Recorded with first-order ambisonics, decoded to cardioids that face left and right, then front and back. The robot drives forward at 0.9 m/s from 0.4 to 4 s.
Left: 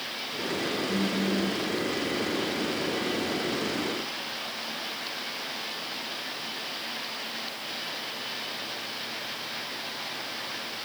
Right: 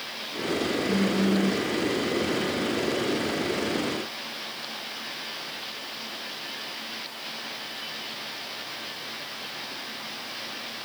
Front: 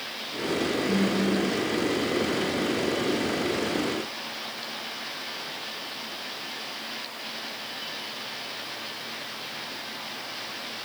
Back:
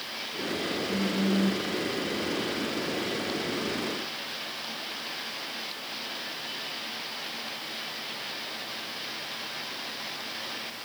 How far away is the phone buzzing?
About 0.6 m.